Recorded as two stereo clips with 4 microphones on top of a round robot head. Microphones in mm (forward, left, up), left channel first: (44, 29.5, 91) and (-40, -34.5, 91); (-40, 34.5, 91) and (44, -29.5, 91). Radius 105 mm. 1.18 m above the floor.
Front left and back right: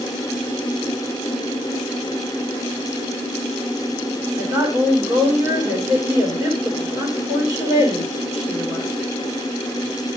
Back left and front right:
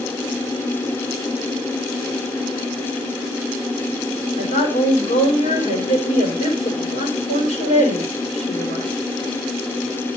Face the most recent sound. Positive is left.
turn(degrees=155)